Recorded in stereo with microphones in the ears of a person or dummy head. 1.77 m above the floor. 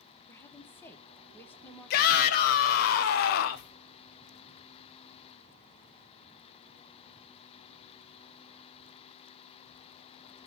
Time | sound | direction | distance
0.3 | a woman speaking | 10° left (ahead or behind) | 1.4 m
1.9 | a shout | 50° left (ahead or behind) | 1.0 m